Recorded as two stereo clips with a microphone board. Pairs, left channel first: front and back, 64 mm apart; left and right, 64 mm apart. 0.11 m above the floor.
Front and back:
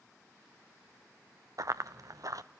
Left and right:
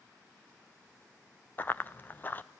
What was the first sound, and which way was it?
Running footsteps, 150° left.